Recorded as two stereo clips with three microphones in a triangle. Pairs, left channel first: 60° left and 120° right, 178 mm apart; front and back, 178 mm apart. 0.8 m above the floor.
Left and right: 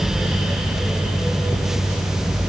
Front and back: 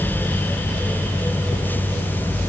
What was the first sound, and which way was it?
Only background noise.